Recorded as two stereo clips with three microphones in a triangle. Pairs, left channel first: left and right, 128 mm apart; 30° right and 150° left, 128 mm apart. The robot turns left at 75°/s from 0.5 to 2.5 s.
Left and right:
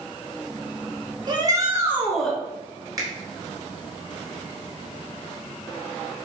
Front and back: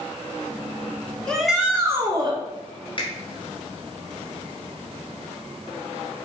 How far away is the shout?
About 1.4 m.